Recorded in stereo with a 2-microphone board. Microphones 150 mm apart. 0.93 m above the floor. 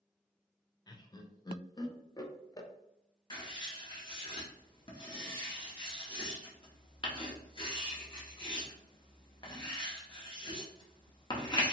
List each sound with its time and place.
0.9 s laughter: 25° left (ahead or behind), 0.5 m
3.3 s writing: 35° left (ahead or behind), 0.8 m